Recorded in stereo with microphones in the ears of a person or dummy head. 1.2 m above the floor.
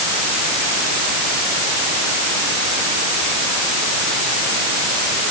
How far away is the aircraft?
No aircraft in this recording.